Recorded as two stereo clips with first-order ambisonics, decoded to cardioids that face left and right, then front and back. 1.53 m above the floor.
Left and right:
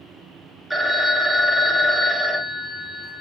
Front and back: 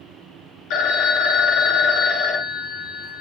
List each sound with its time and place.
0.7 s a phone ringing: straight ahead, 0.6 m